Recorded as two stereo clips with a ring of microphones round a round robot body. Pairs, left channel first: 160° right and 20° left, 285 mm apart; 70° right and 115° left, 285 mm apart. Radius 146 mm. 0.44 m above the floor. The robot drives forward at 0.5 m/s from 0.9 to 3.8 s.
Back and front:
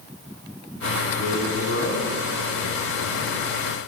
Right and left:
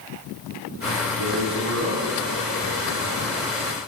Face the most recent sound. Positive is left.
turn(degrees=155)